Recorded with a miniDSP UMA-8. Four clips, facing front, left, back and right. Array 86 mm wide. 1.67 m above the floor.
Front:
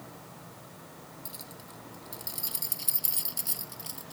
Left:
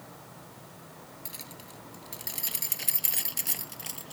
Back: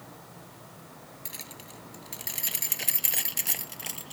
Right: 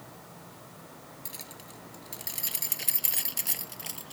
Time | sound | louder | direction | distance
1.2 | keys jangling | even, back 1 dB | 175° left | ?